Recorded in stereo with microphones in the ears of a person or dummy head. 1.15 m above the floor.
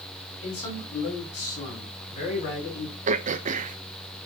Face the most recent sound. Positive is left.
turn(degrees=-40)  # may be behind; listen again after turning